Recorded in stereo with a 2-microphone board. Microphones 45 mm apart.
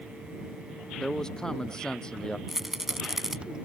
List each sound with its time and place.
1.0 s a man speaking: 15° left (ahead or behind); by 2.4 s 20° left (ahead or behind)
2.5 s a rattle: 10° right (ahead or behind)